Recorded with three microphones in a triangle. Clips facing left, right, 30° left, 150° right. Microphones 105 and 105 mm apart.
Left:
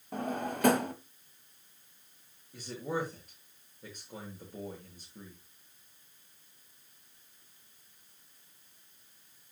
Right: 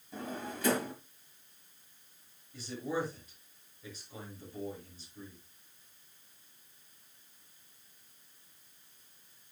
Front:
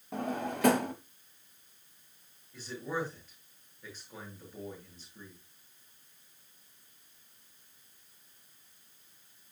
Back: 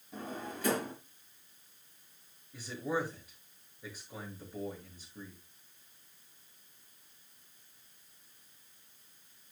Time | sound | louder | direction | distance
0.1 | a drawer | left 6 dB, front 7 dB | 55° left | 1.3 m
2.5 | a man speaking | even, back 1 dB | 130° left | 6.5 m